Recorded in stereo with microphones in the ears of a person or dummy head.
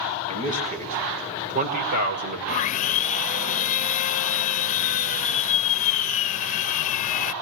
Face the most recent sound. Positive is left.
turn(degrees=40)  # may be behind; listen again after turning